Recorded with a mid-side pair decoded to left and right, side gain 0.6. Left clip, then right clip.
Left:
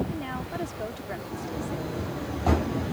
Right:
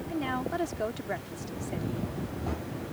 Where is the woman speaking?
20° right.